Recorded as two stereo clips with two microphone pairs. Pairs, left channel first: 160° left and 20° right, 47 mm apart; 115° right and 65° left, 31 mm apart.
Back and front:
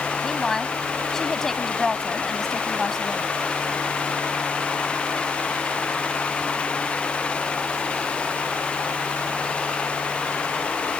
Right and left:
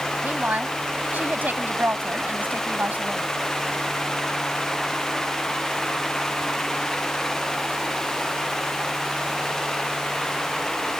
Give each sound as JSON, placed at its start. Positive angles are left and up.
{"t": 0.2, "sound": "a woman speaking", "azimuth_deg": 80}